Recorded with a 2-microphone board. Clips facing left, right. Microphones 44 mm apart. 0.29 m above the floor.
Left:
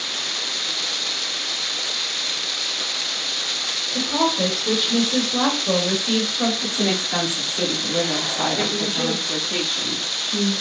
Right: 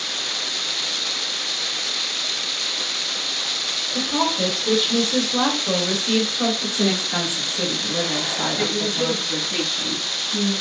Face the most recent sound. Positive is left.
turn(degrees=55)  # may be behind; listen again after turning